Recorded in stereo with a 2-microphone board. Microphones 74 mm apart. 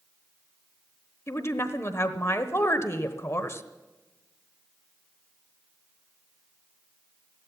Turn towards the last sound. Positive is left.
turn(degrees=40)  # may be behind; listen again after turning